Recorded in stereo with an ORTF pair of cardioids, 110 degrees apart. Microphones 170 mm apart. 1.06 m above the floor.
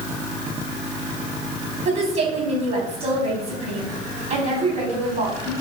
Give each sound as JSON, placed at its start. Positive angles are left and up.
{"t": 1.9, "sound": "a woman speaking", "azimuth_deg": -45, "distance_m": 4.0}